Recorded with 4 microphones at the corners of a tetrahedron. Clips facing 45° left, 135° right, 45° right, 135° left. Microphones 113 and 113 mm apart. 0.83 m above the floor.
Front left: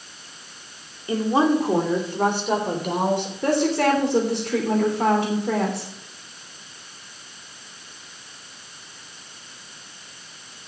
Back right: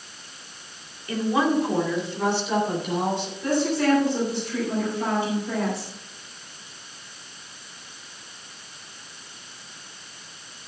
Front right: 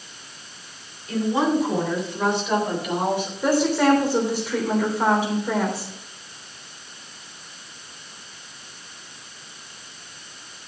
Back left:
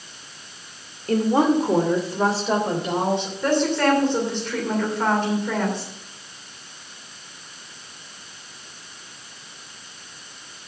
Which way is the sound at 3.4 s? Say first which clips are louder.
Front left 2 dB, front right 2 dB; 35° left.